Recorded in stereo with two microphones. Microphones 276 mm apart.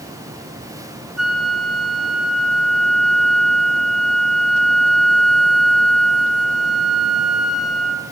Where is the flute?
65° right (ahead or behind), 4 m.